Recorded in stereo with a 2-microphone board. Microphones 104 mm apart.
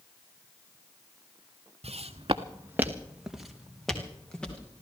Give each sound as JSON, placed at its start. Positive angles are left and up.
{"t": 1.8, "sound": "footsteps", "side_deg": -80, "distance_m": 1.1}